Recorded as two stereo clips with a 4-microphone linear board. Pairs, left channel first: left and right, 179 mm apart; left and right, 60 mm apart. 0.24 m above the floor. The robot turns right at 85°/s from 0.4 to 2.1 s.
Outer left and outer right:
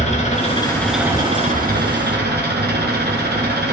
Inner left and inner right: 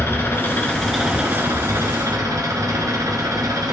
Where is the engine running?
135° left, 1.7 m; by 3.7 s 80° right, 1.7 m.